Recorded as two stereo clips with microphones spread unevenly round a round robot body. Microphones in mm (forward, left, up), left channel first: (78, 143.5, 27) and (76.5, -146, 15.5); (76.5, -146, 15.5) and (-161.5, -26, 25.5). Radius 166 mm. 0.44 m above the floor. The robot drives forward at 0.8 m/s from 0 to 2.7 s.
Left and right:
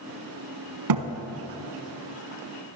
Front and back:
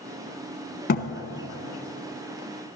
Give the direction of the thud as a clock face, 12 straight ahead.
3 o'clock.